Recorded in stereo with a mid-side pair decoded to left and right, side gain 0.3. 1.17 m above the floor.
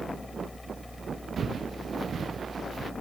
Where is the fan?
25° left.